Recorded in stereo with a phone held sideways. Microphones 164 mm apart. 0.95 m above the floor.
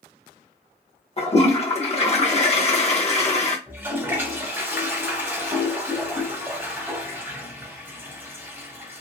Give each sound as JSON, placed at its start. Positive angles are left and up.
{"t": 1.2, "sound": "a toilet flushing", "side_deg": 40, "distance_m": 0.7}
{"t": 3.7, "sound": "a toilet flushing", "side_deg": -15, "distance_m": 1.1}